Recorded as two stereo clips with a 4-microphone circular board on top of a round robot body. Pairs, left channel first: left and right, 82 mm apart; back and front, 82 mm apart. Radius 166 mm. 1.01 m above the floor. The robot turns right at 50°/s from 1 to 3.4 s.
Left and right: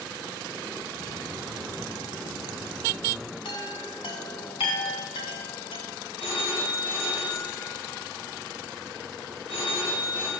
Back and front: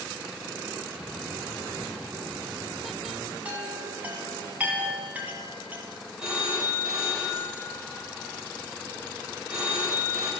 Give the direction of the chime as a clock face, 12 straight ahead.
10 o'clock.